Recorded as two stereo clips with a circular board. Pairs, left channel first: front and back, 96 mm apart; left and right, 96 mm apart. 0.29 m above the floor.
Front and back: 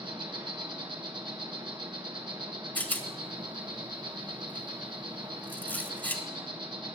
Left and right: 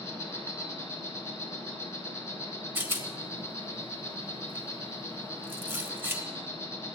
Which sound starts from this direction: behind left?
An insect, at 0.0 s.